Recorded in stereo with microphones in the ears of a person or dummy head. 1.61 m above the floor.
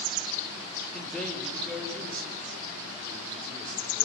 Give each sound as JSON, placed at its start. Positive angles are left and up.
{"t": 0.9, "sound": "a man speaking", "side_deg": 5, "distance_m": 4.5}